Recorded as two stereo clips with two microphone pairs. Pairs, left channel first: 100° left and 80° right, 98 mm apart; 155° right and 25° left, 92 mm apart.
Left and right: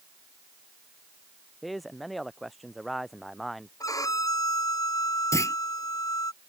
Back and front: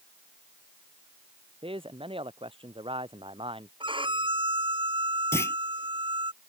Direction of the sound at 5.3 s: 150° left.